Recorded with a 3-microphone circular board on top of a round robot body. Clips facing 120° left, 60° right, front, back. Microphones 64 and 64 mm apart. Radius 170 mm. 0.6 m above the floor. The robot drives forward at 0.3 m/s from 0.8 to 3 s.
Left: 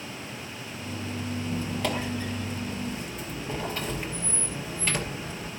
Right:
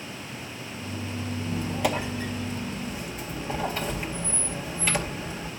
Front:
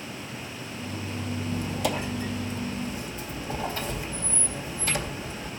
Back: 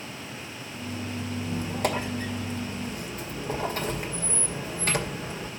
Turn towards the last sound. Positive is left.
turn(degrees=-145)